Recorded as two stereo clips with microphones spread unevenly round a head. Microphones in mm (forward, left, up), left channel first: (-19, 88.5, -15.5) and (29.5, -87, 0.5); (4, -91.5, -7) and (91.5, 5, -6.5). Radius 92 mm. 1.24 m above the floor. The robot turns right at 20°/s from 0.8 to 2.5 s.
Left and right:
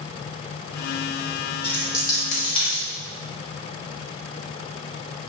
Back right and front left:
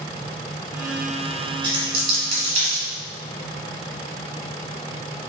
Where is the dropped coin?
25° left, 1.4 m; by 2.8 s 45° left, 1.4 m.